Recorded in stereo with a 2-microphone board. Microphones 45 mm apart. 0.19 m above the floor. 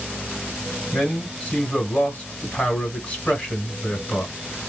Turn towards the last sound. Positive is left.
turn(degrees=20)  # may be behind; listen again after turning